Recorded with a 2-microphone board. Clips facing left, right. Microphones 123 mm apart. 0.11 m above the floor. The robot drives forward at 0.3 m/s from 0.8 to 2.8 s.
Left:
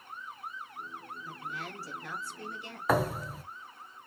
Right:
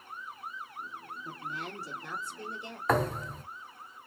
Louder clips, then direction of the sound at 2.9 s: Even; 5° left (ahead or behind).